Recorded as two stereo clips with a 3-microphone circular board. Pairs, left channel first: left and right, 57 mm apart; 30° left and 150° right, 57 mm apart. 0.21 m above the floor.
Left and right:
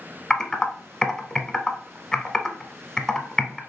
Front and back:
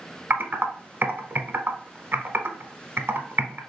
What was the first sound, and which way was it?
Typing on a keyboard, 170° left.